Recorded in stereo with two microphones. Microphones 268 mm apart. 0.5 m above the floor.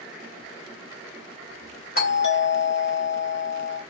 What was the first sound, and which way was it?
A doorbell, 35° left (ahead or behind).